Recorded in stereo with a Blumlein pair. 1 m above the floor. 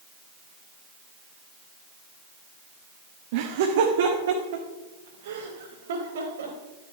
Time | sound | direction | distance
3.3 | laughter | 50° right | 1.0 m